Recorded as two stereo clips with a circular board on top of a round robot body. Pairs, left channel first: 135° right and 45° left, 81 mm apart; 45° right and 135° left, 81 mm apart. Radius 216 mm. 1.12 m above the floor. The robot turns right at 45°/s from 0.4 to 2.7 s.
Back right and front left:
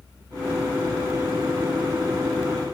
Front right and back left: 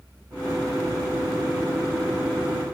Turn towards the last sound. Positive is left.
No sound to turn to.